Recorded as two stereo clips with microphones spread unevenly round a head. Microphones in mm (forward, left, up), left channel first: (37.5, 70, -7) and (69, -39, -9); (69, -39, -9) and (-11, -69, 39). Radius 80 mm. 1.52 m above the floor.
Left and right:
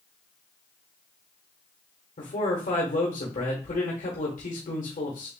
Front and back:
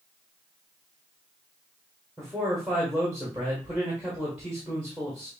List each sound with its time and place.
2.2 s a man speaking: 110° left, 1.1 m